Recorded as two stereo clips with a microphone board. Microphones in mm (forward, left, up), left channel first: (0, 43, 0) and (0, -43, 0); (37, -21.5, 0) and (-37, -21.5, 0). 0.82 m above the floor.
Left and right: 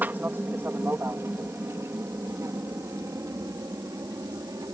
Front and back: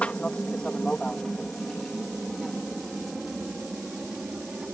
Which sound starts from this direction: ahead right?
An aircraft, at 0.0 s.